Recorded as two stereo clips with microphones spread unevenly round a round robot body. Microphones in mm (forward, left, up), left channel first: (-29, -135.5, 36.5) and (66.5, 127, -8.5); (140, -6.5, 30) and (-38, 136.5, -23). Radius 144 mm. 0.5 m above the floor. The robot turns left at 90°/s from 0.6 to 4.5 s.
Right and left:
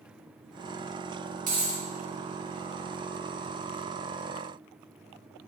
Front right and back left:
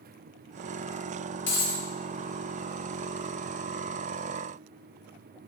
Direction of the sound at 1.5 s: 10° left.